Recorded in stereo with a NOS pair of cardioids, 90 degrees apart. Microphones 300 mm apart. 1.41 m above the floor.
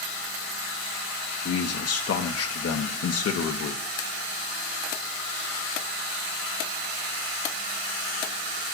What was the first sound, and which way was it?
A man speaking, 55° left.